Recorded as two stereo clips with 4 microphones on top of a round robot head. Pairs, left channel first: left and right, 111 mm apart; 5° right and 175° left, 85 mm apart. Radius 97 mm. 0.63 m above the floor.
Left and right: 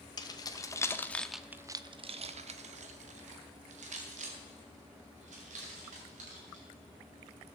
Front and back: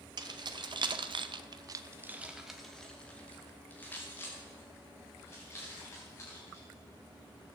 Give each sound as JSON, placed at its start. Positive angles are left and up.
{"t": 0.2, "sound": "keys jangling", "azimuth_deg": 140, "distance_m": 1.4}